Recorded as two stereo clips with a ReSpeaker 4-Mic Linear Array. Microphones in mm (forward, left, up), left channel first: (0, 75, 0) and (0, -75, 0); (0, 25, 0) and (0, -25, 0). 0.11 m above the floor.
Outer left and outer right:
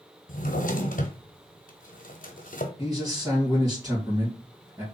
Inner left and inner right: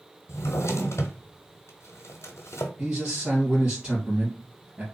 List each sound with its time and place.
0.3 s a drawer: 70° left (ahead or behind), 0.9 m
2.8 s a man speaking: 25° right (ahead or behind), 2.5 m